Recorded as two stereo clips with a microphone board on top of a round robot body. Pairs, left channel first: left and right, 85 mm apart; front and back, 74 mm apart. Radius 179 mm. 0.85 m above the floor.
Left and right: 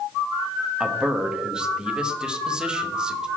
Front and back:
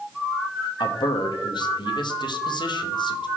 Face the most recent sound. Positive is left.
turn(degrees=-10)